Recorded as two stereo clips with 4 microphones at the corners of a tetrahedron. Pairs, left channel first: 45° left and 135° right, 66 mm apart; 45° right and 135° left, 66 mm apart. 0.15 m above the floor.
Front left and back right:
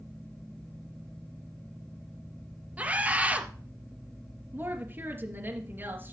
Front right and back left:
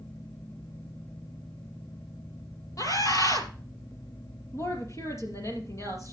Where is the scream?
70° right, 3 m.